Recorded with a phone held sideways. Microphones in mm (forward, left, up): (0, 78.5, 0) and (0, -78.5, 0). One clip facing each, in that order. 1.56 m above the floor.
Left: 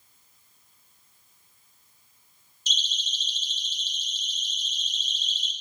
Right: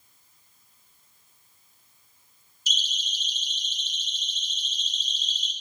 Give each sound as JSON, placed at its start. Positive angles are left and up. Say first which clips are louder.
{"t": 2.7, "sound": "a siren", "louder": "right 1 dB", "side_deg": -10, "distance_m": 5.0}